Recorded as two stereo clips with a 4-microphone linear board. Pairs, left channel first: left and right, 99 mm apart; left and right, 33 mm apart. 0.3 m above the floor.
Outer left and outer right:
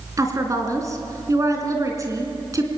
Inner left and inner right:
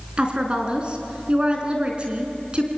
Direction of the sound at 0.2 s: 35° right (ahead or behind).